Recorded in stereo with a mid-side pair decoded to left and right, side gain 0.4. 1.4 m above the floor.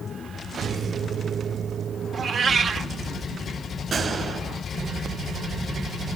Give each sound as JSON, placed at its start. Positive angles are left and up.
{"t": 2.1, "sound": "a cat meowing", "azimuth_deg": -55, "distance_m": 2.0}
{"t": 3.9, "sound": "a gunshot", "azimuth_deg": -45, "distance_m": 5.0}